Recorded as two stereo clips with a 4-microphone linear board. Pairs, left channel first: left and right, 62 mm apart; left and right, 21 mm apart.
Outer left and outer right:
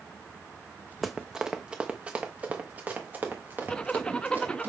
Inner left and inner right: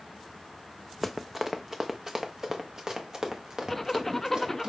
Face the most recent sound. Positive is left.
turn(degrees=15)  # may be behind; listen again after turning